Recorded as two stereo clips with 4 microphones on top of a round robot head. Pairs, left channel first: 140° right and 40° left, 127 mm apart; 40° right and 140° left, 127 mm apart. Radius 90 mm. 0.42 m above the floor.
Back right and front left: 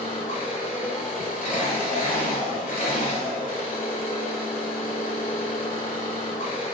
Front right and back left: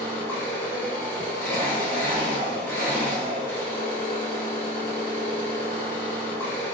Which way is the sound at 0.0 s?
115° right.